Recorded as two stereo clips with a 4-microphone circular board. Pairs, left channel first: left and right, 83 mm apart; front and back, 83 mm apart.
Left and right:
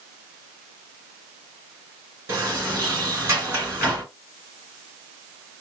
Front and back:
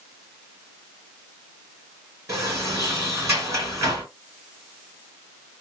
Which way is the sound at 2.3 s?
140° right.